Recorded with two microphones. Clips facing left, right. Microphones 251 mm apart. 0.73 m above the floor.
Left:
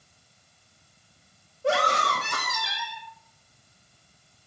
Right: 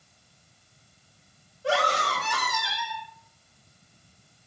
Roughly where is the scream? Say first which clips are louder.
Left 1 dB; left.